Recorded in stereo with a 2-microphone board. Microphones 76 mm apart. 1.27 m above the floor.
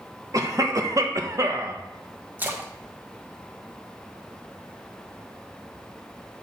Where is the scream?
No scream in this recording.